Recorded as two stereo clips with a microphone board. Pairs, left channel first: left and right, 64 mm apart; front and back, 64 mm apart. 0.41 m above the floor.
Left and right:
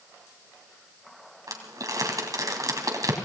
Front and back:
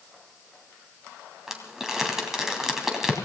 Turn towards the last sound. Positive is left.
turn(degrees=-100)